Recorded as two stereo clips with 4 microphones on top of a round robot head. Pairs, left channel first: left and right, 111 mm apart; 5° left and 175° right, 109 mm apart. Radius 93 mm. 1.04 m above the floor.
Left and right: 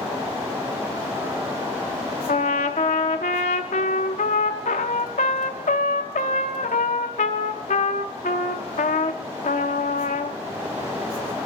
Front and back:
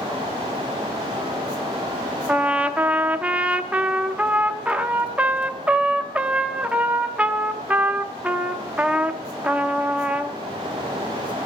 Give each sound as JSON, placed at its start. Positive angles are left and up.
{"t": 2.3, "sound": "a trumpet", "azimuth_deg": 110, "distance_m": 0.7}